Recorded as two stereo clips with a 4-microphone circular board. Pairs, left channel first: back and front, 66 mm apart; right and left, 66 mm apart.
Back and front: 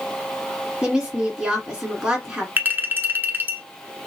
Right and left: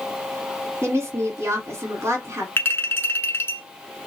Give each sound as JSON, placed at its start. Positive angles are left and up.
{"t": 0.8, "sound": "a woman speaking", "azimuth_deg": 70, "distance_m": 1.5}
{"t": 2.6, "sound": "a clink", "azimuth_deg": -50, "distance_m": 0.9}